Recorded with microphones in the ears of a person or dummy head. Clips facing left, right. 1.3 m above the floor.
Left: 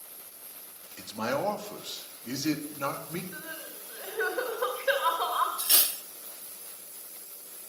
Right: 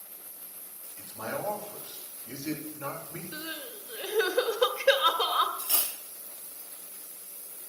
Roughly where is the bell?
I don't hear a bell.